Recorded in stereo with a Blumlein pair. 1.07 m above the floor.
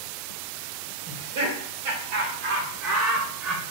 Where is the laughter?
60° right, 1.8 m; by 3.6 s 10° right, 0.8 m.